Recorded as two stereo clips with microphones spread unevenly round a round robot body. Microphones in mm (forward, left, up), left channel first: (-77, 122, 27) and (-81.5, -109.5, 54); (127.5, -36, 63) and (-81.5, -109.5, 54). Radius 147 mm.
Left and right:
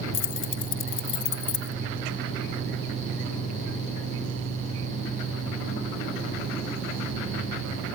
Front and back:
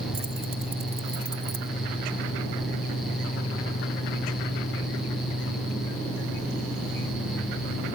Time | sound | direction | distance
0.1 | keys jangling | 120° left | ?